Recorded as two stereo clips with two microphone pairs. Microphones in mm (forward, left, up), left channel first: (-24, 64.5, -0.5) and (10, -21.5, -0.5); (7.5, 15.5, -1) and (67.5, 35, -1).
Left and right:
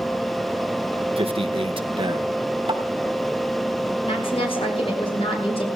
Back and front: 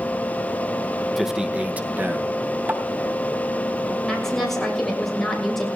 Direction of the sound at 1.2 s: 65° right.